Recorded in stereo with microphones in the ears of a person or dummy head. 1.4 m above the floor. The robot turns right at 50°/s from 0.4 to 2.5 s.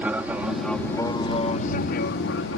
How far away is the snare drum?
No snare drum in this recording.